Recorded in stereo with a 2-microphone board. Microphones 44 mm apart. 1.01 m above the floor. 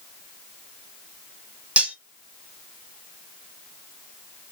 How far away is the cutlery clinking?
About 0.8 m.